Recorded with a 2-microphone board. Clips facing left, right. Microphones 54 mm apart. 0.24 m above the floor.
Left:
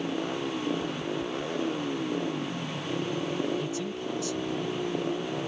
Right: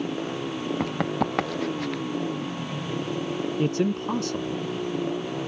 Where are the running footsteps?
75° right (ahead or behind); by 2.0 s 85° right.